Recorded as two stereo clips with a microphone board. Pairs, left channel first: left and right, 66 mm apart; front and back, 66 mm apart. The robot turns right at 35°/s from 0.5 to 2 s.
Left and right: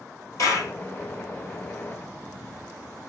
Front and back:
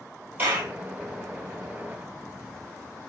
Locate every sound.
0.4 s a clap: 125° left, 2.5 m; by 0.7 s 130° left, 2.5 m